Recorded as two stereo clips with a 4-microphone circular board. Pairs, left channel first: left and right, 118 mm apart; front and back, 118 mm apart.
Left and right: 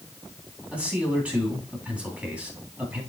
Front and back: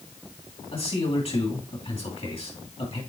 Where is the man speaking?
15° right, 3 m.